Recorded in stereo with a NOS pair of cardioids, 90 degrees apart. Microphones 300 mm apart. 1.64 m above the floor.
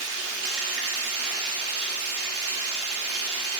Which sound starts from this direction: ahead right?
Running water, at 0.0 s.